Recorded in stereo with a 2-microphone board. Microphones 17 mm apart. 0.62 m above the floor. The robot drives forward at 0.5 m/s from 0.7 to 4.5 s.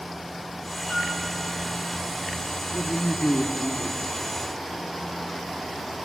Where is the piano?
45° left (ahead or behind), 6 m.